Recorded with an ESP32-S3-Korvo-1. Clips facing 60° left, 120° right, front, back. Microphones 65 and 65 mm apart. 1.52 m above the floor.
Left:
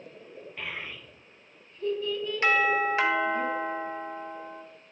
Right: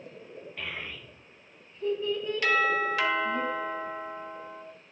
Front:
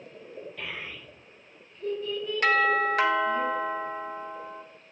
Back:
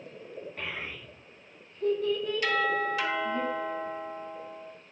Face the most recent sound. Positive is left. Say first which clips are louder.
# left 2 dB, front 6 dB
turn(degrees=5)